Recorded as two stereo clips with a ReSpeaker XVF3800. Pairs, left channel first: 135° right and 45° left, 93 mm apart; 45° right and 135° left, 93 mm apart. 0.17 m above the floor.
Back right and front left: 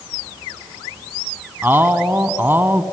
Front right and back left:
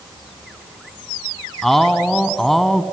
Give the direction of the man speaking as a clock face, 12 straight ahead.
11 o'clock.